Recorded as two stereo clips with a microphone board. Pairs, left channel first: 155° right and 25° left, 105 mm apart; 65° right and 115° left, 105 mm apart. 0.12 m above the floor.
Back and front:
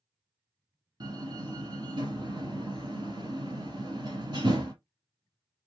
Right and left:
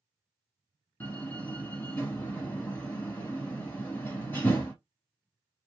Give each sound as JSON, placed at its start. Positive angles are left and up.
{"t": 1.0, "sound": "a door slam", "azimuth_deg": 0, "distance_m": 1.8}